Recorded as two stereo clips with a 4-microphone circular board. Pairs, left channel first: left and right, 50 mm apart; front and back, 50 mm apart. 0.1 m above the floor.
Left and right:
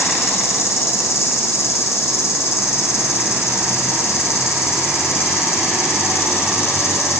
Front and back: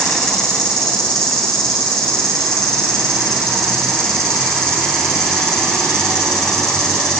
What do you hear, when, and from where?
0.0 s an insect: 75° left, 4 m